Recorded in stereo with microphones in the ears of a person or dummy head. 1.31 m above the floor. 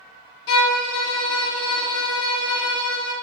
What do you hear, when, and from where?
0.5 s a violin: 60° left (ahead or behind), 0.9 m